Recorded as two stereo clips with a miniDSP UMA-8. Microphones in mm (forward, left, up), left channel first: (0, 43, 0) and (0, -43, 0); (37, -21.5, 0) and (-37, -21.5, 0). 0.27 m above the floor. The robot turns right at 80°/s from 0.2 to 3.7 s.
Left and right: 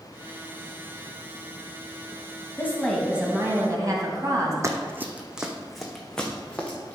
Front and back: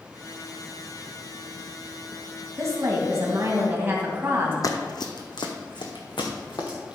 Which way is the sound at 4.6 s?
35° right.